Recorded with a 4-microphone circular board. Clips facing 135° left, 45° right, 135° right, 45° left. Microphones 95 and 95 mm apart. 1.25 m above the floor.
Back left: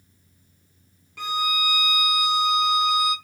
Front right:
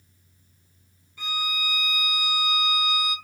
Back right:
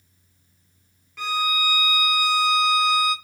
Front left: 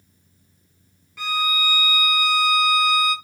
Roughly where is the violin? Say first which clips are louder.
Back left 6 dB, even; behind left.